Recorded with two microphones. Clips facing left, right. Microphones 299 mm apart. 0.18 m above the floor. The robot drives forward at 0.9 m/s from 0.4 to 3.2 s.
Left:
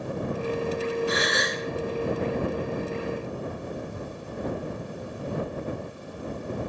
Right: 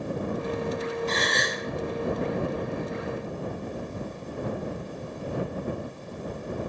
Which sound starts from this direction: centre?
A gasp, at 1.1 s.